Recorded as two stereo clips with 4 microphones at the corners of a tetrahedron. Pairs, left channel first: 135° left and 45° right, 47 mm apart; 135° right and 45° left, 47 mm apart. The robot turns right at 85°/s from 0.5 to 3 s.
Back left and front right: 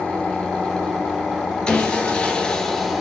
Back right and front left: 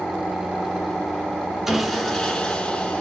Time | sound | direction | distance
1.7 | sawing | 110° left | 0.7 m